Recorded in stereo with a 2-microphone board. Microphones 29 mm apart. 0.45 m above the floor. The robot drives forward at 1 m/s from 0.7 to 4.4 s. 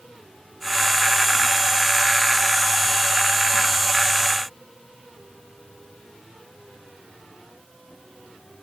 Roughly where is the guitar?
I don't hear a guitar.